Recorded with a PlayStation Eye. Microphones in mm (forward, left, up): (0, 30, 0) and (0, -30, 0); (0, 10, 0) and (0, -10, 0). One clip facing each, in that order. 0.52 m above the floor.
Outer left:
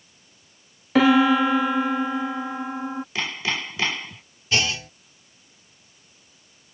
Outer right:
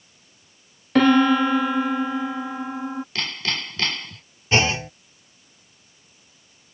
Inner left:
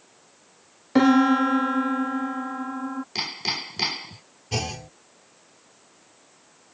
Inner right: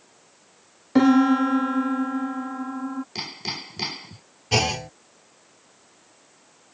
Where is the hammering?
15° left (ahead or behind).